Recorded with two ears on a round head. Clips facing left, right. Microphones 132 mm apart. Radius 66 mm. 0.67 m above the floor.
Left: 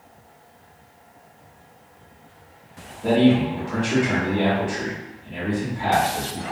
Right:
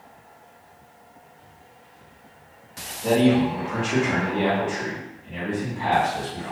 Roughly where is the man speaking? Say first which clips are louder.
Left 1 dB; left.